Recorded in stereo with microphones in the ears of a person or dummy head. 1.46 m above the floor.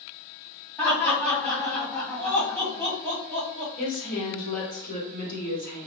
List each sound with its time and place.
0.8 s laughter: 5° left (ahead or behind), 1.6 m
3.8 s a woman speaking: 45° left (ahead or behind), 1.3 m